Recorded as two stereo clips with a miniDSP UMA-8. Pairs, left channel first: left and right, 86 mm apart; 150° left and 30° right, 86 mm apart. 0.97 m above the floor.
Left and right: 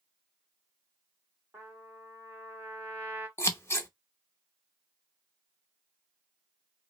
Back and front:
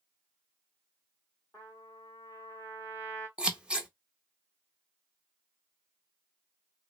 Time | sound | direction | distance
1.5 | a trumpet | 155° right | 1.9 m
3.4 | scissors | 45° left | 0.7 m